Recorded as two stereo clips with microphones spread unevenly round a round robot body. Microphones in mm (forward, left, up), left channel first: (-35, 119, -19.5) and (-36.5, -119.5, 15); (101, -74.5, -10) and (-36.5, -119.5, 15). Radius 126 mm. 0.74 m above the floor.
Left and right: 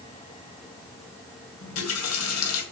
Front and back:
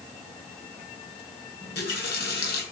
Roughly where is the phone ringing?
I don't hear a phone ringing.